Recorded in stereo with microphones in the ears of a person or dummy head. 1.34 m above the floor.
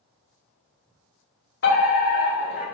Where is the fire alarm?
50° left (ahead or behind), 1.6 m.